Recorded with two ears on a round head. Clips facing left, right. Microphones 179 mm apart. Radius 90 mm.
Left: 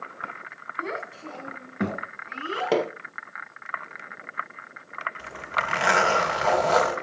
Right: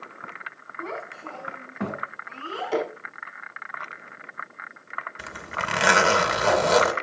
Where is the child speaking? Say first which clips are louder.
Left 1 dB; 20° left (ahead or behind), 2.5 m.